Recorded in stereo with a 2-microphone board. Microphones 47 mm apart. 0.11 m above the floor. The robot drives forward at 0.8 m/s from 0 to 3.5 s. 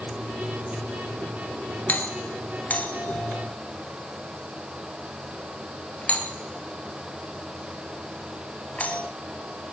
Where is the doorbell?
35° left (ahead or behind), 2.5 m; by 9.0 s 30° left (ahead or behind), 3 m.